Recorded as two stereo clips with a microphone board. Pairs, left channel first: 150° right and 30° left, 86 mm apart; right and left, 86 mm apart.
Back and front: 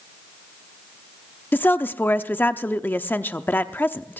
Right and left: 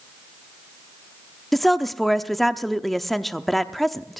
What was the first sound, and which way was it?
A woman speaking, 175° right.